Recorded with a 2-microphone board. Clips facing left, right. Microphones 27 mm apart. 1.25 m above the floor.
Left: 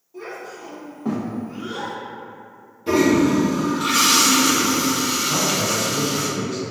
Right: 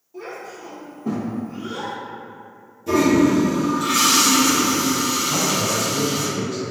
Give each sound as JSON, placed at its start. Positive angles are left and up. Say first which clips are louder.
{"t": 0.1, "sound": "a child speaking", "louder": "even", "side_deg": -5, "distance_m": 0.9}
{"t": 2.9, "sound": "a toilet flushing", "louder": "even", "side_deg": 45, "distance_m": 0.7}
{"t": 5.3, "sound": "a man speaking", "louder": "even", "side_deg": 10, "distance_m": 1.0}